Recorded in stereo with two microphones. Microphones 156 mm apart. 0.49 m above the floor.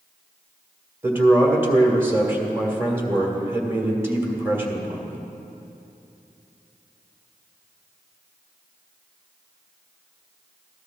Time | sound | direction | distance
1.0 | a man speaking | 15° right (ahead or behind) | 1.8 m